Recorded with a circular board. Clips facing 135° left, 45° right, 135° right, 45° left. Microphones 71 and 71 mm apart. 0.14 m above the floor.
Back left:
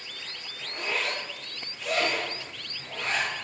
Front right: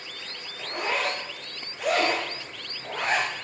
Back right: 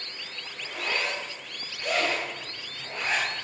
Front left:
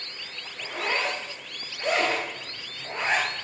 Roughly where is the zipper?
Ahead.